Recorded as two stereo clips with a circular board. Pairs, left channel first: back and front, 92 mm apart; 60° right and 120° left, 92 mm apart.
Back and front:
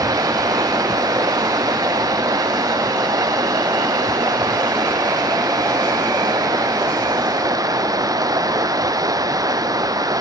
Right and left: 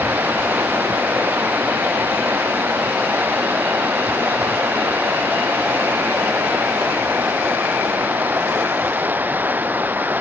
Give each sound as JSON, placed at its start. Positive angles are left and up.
{"t": 0.0, "sound": "running water", "azimuth_deg": 50}